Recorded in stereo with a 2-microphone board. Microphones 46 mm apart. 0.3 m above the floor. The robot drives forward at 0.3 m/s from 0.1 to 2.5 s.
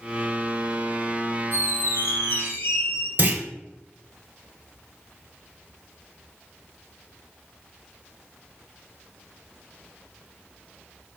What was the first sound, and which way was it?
A squeak, 80° left.